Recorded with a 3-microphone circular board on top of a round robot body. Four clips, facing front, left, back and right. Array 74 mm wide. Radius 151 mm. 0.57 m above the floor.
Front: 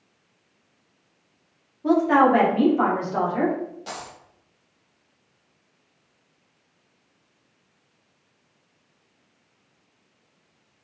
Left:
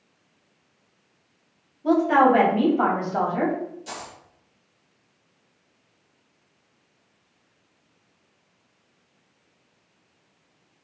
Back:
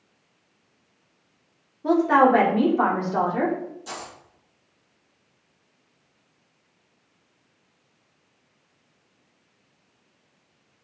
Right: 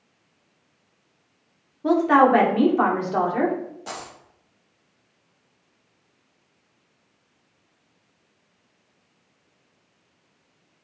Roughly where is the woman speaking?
Right.